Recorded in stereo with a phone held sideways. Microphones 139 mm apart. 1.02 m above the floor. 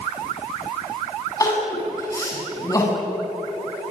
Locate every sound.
1.4 s crying: 25° left (ahead or behind), 7 m